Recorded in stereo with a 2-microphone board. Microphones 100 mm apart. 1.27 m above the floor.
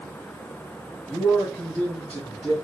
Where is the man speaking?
15° left (ahead or behind), 3.5 m.